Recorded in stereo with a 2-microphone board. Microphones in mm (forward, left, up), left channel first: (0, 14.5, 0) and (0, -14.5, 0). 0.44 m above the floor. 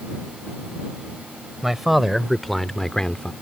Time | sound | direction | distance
1.6 | a man speaking | 10° right (ahead or behind) | ?